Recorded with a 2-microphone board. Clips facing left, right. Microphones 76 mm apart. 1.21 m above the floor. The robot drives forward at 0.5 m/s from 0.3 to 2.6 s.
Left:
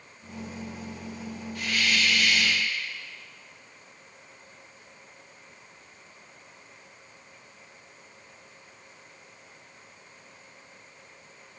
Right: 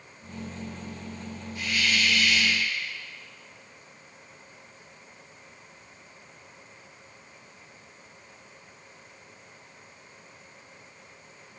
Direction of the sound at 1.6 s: 85° left.